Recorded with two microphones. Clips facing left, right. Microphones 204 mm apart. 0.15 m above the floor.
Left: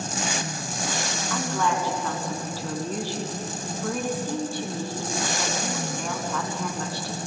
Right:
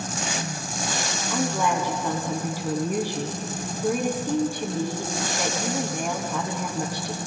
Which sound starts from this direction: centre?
A woman speaking, at 1.3 s.